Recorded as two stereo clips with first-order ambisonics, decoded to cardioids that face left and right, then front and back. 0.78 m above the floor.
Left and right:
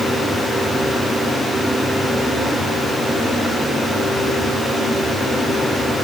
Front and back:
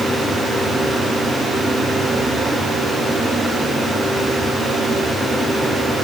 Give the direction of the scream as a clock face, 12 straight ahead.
No scream in this recording.